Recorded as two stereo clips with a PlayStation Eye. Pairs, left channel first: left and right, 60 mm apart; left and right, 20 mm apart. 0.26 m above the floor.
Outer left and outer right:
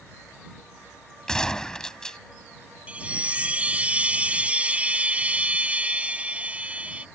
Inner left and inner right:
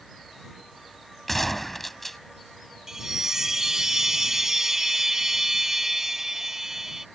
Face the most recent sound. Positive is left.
turn(degrees=-25)  # may be behind; listen again after turning